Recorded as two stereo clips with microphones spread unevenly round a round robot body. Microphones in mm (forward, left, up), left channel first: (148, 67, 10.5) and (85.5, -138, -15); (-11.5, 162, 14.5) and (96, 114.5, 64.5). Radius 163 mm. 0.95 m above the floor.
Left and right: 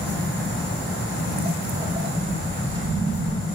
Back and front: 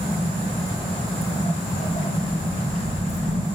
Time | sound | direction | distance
0.7 | footsteps | straight behind | 8 m